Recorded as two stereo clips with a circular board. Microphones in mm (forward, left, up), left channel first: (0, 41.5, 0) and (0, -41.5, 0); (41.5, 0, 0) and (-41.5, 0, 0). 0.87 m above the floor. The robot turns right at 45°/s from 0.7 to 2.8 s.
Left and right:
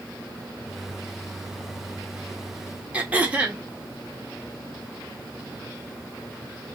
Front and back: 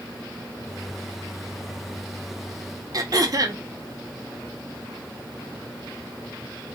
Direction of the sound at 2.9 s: 160° right.